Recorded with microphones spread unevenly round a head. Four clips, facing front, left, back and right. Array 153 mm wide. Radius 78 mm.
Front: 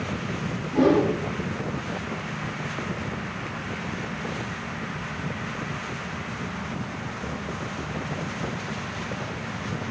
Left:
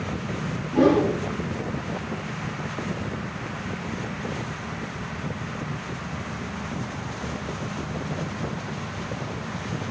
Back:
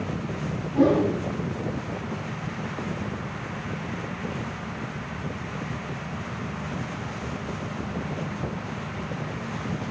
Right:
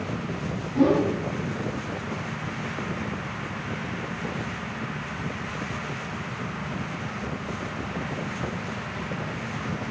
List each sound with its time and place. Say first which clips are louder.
0.7 s a whoosh: left 2 dB, front 1 dB; 50° left, 4.5 m